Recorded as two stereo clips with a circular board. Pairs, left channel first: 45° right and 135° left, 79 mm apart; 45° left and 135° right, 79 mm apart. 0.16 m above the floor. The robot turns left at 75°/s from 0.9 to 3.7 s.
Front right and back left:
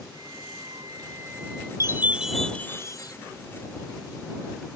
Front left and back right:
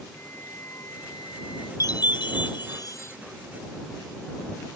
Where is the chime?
85° left; by 3.1 s 15° right.